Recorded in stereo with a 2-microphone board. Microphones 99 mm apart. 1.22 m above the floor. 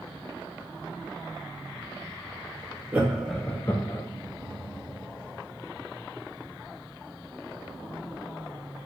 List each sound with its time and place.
2.9 s laughter: 15° right (ahead or behind), 0.9 m; by 4.0 s 45° left (ahead or behind), 0.7 m